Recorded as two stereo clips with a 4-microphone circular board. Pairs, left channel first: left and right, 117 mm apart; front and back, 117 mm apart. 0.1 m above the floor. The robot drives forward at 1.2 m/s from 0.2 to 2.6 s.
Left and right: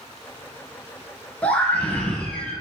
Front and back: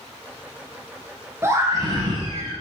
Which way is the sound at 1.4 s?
155° left.